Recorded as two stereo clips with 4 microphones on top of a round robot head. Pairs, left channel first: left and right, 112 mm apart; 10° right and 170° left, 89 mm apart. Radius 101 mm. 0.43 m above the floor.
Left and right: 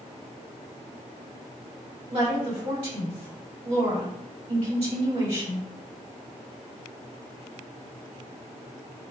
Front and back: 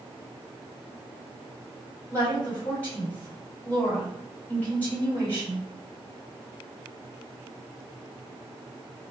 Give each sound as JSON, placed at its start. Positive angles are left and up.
{"t": 2.1, "sound": "a woman speaking", "azimuth_deg": -85, "distance_m": 1.8}